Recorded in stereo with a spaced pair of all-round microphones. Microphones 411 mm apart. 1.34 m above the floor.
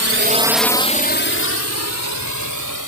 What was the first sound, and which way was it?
A drone, 40° right (ahead or behind).